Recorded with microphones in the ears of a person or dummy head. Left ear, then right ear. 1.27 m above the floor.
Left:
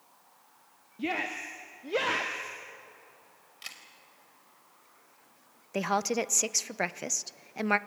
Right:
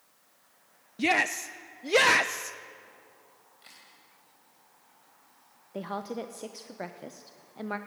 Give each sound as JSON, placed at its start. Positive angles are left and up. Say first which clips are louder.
{"t": 1.0, "sound": "a shout", "louder": "right 7 dB", "side_deg": -65, "distance_m": 0.7}
{"t": 3.6, "sound": "a camera shutter", "louder": "left 10 dB", "side_deg": 55, "distance_m": 3.5}
{"t": 5.7, "sound": "a woman speaking", "louder": "left 7 dB", "side_deg": 55, "distance_m": 0.7}